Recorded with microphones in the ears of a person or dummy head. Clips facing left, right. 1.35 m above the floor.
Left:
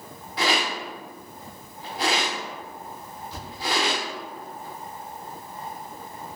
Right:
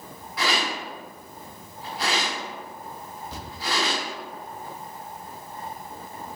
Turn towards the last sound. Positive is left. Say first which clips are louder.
# even
turn(degrees=-60)  # may be behind; listen again after turning